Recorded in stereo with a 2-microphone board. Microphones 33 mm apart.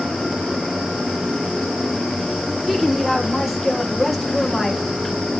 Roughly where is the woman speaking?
Centre.